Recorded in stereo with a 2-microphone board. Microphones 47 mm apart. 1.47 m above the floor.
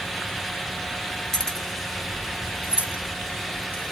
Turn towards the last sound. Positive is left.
turn(degrees=-30)  # may be behind; listen again after turning